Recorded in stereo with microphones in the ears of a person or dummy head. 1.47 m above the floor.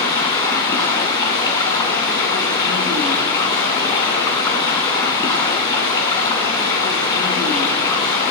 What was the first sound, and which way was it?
Running water, 25° left (ahead or behind).